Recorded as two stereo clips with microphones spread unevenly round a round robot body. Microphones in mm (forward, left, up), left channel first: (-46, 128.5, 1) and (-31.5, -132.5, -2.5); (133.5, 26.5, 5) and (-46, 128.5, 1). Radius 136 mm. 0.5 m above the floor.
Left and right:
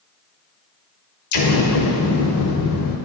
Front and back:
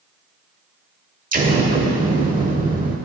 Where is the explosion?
100° left, 1.1 m.